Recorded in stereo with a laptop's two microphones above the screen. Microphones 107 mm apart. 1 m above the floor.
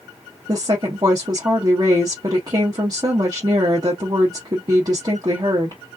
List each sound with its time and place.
0.5 s a woman speaking: 40° right (ahead or behind), 0.8 m